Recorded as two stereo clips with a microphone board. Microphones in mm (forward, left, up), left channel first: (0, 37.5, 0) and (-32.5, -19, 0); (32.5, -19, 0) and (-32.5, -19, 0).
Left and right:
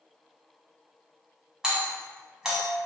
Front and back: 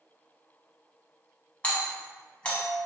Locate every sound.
1.6 s a doorbell: 50° right, 1.1 m